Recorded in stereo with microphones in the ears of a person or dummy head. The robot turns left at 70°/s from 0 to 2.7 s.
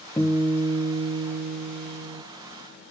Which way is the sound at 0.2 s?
15° left.